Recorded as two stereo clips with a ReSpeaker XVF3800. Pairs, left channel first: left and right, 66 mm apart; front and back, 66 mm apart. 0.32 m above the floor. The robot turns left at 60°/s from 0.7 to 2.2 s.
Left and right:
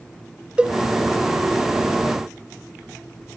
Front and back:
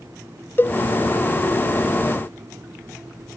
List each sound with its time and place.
0.6 s a cowbell: 25° right, 0.7 m; by 0.8 s 30° right, 0.7 m